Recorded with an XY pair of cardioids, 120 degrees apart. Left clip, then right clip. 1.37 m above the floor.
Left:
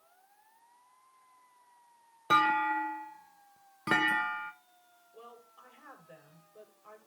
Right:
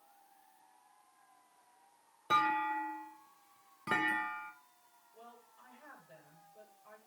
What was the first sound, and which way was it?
A clunk, 40° left.